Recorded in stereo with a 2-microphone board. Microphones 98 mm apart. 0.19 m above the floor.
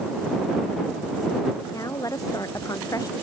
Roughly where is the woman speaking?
Left.